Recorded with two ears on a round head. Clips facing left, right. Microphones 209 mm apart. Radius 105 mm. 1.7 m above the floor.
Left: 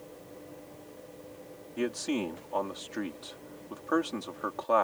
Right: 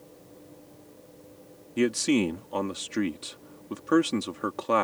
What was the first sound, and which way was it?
A man speaking, 35° right (ahead or behind).